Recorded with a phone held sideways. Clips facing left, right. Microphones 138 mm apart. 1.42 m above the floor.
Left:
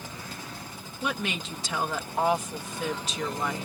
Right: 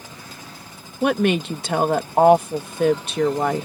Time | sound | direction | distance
1.0 | a woman speaking | 65° right (ahead or behind) | ?